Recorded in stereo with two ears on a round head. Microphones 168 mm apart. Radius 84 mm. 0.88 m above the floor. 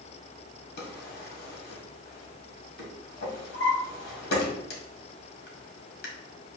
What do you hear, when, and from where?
0.8 s a drawer: 55° left (ahead or behind), 1.7 m